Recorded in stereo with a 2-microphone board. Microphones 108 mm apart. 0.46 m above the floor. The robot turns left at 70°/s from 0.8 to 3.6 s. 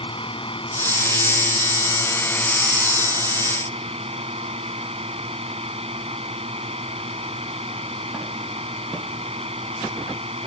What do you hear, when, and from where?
0.0 s a drone: 125° left; by 10.5 s 75° right